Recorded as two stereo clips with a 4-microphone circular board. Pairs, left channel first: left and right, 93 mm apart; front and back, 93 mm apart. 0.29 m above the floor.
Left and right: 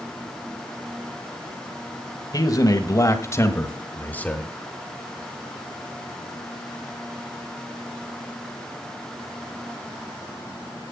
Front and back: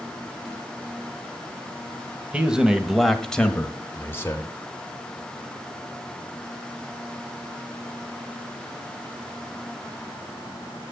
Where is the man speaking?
105° left, 1.3 m; by 4.5 s 20° left, 1.2 m.